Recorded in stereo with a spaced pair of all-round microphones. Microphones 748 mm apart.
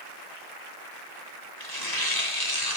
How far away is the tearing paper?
About 3 m.